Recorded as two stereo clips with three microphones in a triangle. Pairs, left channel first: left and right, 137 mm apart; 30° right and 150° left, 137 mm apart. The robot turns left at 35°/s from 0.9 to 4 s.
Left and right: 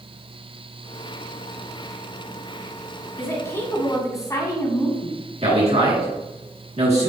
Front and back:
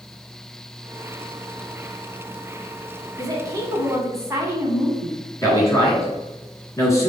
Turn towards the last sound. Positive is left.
turn(degrees=-90)